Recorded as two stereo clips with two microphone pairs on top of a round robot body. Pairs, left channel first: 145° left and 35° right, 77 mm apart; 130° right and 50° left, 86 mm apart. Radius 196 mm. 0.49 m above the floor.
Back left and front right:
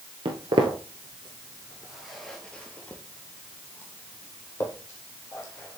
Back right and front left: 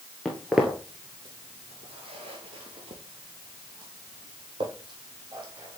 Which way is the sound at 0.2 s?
40° right.